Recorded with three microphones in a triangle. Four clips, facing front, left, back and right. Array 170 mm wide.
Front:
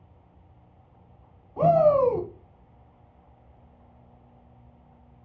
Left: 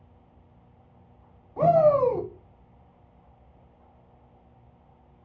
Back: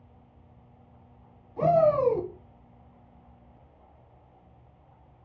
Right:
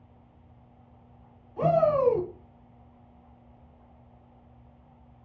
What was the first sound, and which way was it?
A shout, 45° left.